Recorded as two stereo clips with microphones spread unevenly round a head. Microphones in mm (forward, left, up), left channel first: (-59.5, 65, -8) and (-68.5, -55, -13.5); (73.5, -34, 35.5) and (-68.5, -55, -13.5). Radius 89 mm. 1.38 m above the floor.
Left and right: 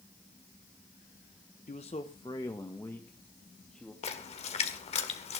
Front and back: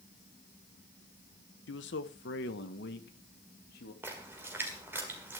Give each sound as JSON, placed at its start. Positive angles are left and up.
{"t": 1.7, "sound": "a man speaking", "azimuth_deg": 30, "distance_m": 1.0}
{"t": 4.0, "sound": "a splash", "azimuth_deg": 100, "distance_m": 1.8}